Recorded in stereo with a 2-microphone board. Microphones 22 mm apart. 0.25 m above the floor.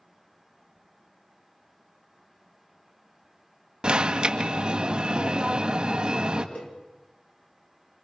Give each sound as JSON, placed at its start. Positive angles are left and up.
{"t": 3.8, "sound": "an alarm", "side_deg": -45, "distance_m": 1.6}
{"t": 6.5, "sound": "a cowbell", "side_deg": 65, "distance_m": 3.0}